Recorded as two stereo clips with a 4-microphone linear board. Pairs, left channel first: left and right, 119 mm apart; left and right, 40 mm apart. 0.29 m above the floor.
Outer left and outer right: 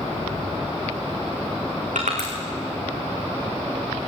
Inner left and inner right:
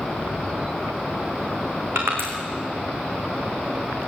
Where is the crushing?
85° right, 5.5 m.